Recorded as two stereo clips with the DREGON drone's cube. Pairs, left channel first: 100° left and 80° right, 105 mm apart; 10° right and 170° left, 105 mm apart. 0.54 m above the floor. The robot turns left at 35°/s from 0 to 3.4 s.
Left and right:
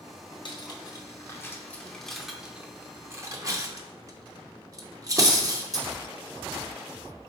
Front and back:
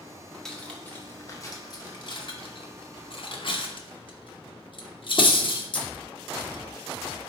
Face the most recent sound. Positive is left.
turn(degrees=-30)